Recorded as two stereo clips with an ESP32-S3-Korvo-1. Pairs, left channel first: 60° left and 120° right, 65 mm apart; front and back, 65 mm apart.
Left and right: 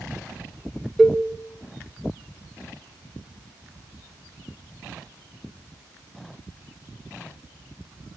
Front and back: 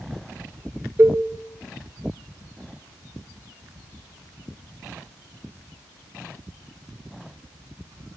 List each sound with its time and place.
1.0 s a cowbell: 155° left, 0.8 m